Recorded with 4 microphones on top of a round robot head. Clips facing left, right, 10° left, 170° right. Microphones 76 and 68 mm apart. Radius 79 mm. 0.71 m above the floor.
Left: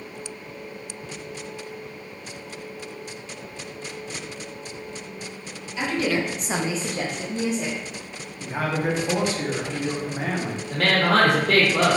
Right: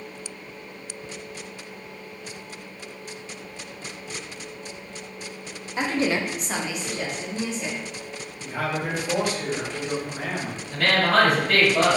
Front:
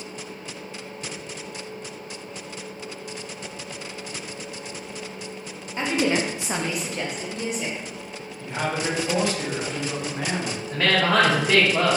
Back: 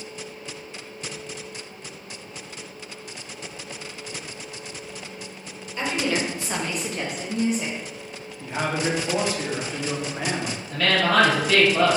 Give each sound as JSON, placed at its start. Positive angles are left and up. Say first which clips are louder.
{"t": 5.8, "sound": "a woman speaking", "louder": "even, front 2 dB", "azimuth_deg": -50, "distance_m": 1.0}
{"t": 8.4, "sound": "a man speaking", "louder": "left 3 dB, back 1 dB", "azimuth_deg": 125, "distance_m": 1.0}
{"t": 10.7, "sound": "a woman speaking", "louder": "even, even", "azimuth_deg": 70, "distance_m": 2.0}